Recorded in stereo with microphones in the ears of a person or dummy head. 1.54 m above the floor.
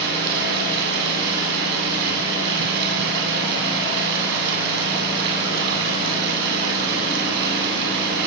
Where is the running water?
65° right (ahead or behind), 9.5 m.